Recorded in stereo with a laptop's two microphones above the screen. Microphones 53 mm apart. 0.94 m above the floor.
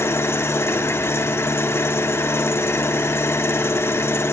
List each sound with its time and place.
0.0 s an engine running: 55° left (ahead or behind), 1.1 m